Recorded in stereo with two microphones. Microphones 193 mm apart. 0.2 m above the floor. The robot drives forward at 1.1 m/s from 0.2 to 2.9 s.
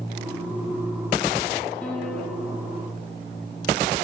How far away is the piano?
About 5 m.